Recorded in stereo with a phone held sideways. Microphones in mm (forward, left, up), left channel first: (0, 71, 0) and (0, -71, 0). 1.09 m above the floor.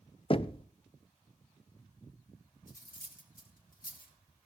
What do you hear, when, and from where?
0.3 s knocking: 40° left (ahead or behind), 0.6 m
2.7 s cutlery clinking: 85° left, 2.5 m